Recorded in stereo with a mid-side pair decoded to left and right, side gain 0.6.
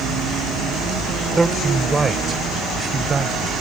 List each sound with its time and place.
1.4 s a man speaking: 20° right; by 3.5 s 30° right